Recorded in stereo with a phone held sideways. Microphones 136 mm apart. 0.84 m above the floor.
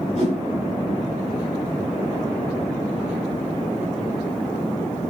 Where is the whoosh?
45° right (ahead or behind), 2.5 m.